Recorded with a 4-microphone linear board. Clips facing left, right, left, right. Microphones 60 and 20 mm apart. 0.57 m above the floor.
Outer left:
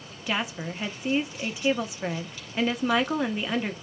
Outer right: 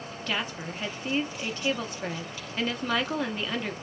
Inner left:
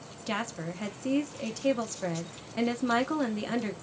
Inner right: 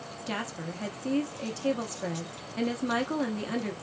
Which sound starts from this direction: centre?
A woman speaking, at 0.3 s.